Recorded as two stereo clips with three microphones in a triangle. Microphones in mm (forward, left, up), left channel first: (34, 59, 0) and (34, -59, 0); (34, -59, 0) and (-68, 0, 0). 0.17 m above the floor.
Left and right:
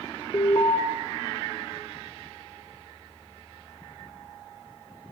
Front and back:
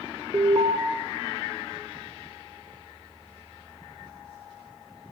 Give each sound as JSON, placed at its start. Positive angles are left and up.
{"t": 0.3, "sound": "an alarm", "azimuth_deg": 115, "distance_m": 2.0}